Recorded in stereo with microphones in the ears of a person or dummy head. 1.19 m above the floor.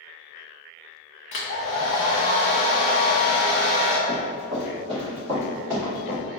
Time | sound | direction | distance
1.3 | a hair dryer | 35° left (ahead or behind) | 0.6 m
4.1 | running footsteps | 35° right (ahead or behind) | 1.7 m